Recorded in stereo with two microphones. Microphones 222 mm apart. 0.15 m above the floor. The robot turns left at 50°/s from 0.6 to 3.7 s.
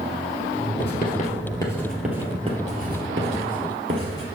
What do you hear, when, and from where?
0.8 s writing: 50° left (ahead or behind), 2 m; by 4.2 s 70° right (ahead or behind), 2 m